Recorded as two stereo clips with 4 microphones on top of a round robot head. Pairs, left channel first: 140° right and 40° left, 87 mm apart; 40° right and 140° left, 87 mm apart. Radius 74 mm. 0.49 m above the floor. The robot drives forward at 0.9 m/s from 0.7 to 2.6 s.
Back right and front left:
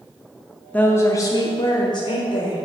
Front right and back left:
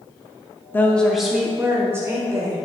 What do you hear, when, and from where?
0.7 s a woman speaking: 80° right, 0.8 m; by 2.7 s 165° right, 1.8 m